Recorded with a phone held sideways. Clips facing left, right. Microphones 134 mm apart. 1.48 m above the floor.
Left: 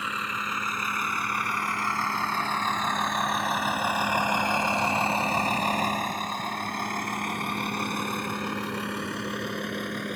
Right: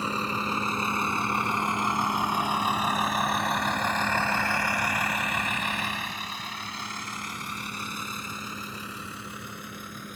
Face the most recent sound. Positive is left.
turn(degrees=80)